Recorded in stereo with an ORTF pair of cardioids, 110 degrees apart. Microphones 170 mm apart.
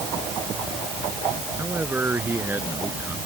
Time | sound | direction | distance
1.6 | a man speaking | 15° right | ?